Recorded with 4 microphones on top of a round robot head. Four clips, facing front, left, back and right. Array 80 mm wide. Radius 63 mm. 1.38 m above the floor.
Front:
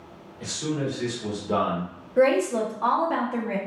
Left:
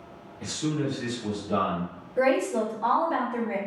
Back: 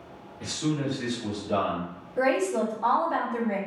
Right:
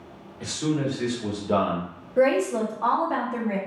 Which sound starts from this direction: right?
A man speaking, at 0.4 s.